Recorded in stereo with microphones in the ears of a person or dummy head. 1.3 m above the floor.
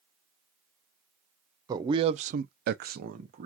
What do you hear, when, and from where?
1.7 s a man speaking: 20° right (ahead or behind), 0.8 m; by 3.5 s 35° right (ahead or behind), 0.9 m